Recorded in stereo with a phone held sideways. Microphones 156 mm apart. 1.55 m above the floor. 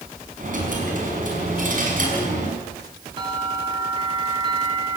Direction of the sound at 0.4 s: 60° right (ahead or behind).